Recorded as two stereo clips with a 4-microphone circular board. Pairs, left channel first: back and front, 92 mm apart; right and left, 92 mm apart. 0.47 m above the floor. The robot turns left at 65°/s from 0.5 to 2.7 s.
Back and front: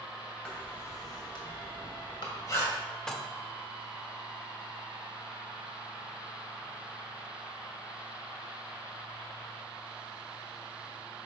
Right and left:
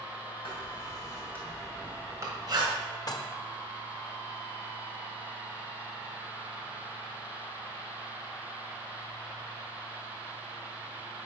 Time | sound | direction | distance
0.5 | writing | 100° right | 1.7 m
3.1 | dishes clattering | 100° right | 0.7 m